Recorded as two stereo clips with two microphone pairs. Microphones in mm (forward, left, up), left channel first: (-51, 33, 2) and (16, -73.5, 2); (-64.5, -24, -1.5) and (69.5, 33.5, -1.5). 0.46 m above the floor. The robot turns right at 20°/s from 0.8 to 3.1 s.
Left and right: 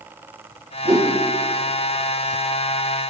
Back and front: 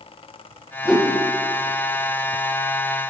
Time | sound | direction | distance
0.8 | a whoosh | 65° right | 3 m